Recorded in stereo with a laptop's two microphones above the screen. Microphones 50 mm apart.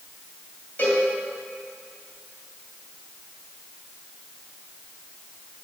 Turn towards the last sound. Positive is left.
turn(degrees=35)  # may be behind; listen again after turning